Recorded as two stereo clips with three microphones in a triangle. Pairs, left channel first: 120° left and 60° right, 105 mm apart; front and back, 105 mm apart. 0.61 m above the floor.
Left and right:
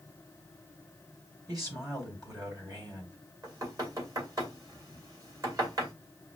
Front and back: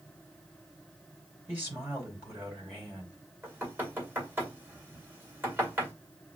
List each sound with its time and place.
1.5 s a man speaking: 110° right, 4 m
3.4 s knocking: 110° right, 2 m